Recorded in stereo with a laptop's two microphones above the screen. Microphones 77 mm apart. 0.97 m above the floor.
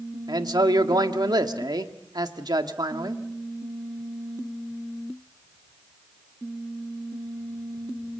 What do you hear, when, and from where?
0.3 s a man speaking: 65° right (ahead or behind), 1.7 m